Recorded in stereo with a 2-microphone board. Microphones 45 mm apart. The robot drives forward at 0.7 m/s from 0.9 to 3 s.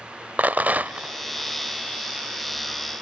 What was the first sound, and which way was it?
A rattle, 40° right (ahead or behind).